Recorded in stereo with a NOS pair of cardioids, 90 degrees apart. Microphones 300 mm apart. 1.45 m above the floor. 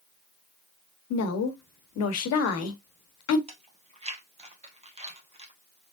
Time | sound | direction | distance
1.1 | a woman speaking | 65° left | 1.1 m
3.5 | chewing | 20° right | 1.5 m